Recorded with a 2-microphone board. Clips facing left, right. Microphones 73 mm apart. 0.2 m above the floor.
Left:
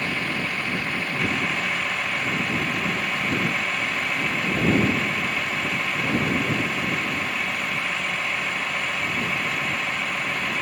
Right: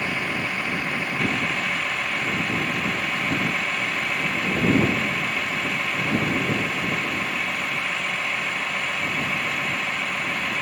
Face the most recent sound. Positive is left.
turn(degrees=-10)  # may be behind; listen again after turning